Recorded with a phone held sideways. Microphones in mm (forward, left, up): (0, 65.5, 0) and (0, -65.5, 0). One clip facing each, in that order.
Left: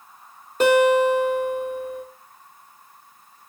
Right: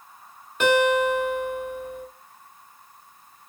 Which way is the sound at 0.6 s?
35° left (ahead or behind).